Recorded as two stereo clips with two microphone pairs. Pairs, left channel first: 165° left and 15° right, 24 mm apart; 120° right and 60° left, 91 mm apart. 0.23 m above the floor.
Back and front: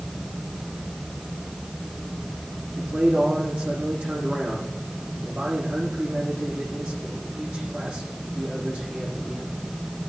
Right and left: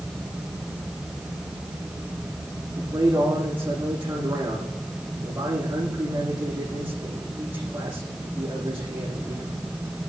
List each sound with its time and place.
2.8 s a man speaking: 5° right, 9.5 m